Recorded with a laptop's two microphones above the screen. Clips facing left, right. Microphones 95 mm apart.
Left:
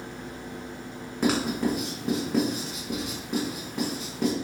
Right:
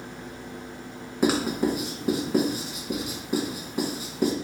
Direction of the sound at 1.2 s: 5° right (ahead or behind).